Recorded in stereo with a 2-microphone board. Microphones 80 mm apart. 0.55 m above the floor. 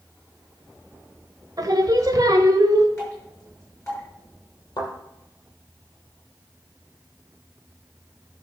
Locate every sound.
1.6 s singing: 50° right (ahead or behind), 1.2 m
3.0 s dripping: 35° left (ahead or behind), 6.5 m
4.8 s a thud: 65° left (ahead or behind), 5 m